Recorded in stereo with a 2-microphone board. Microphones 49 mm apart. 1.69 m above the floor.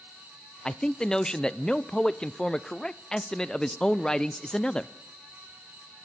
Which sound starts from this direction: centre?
A man speaking, at 0.7 s.